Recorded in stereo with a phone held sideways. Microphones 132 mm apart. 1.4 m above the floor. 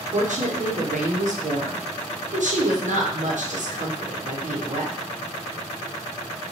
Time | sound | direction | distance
0.1 | a woman speaking | 70° right (ahead or behind) | 0.8 m